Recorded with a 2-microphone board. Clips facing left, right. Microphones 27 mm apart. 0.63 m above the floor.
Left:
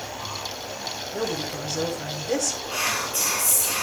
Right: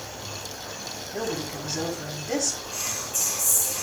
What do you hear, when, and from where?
0.0 s an insect: 80° right, 7.5 m
1.1 s a woman speaking: 15° right (ahead or behind), 3.5 m
2.7 s whispering: 55° left (ahead or behind), 1.0 m